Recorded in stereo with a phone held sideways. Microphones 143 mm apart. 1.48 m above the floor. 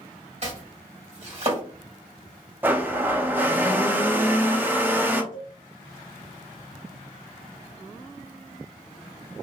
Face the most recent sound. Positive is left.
turn(degrees=-60)  # may be behind; listen again after turning